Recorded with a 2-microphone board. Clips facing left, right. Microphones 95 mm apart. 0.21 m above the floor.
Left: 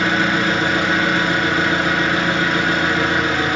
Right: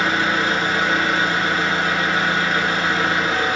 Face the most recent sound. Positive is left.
turn(degrees=65)  # may be behind; listen again after turning